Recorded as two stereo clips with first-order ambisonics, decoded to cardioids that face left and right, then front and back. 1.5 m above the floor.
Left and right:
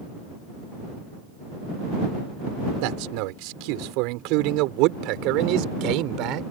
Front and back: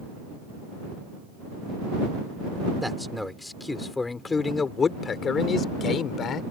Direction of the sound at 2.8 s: 90° right.